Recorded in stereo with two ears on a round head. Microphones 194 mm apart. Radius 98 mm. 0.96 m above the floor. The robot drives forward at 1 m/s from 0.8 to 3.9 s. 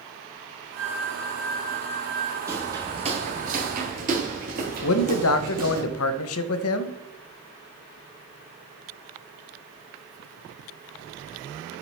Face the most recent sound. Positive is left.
turn(degrees=70)  # may be behind; listen again after turning